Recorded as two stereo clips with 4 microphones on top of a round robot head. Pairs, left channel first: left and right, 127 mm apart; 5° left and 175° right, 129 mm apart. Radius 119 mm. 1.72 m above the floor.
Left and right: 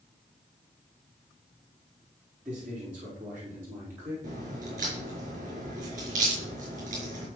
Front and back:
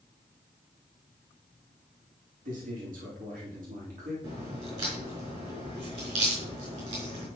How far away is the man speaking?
About 5 m.